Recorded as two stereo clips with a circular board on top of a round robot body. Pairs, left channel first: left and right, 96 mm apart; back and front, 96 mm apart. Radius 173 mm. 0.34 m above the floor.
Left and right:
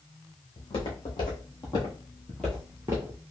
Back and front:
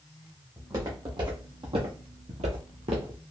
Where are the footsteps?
50° left, 1.3 m; by 3.2 s 50° right, 0.5 m.